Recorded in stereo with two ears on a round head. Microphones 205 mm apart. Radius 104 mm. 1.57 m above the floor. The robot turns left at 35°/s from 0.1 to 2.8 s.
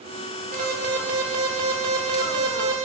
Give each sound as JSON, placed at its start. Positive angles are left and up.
{"t": 0.5, "sound": "an alarm", "azimuth_deg": -35, "distance_m": 3.0}